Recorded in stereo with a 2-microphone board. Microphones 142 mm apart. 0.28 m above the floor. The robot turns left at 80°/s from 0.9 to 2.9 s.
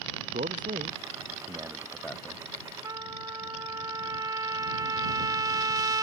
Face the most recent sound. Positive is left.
turn(degrees=-30)  # may be behind; listen again after turning